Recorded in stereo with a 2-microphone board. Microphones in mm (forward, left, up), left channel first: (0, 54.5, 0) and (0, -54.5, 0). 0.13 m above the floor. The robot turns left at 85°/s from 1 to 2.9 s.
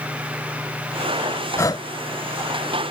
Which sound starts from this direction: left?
Breathing, at 1.6 s.